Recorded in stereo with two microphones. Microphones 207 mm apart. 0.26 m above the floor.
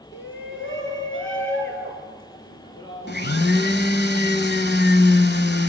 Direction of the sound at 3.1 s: 55° left (ahead or behind).